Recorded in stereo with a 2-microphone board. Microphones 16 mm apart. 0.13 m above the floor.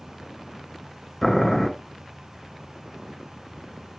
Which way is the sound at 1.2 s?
20° left (ahead or behind).